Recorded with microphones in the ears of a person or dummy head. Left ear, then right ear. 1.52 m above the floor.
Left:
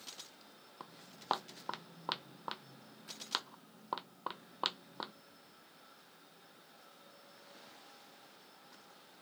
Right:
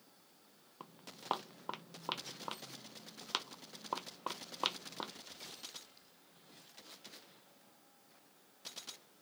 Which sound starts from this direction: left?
Footsteps, at 0.8 s.